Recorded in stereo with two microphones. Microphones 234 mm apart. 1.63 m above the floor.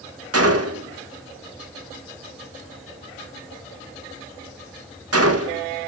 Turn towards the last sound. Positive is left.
turn(degrees=-75)  # may be behind; listen again after turning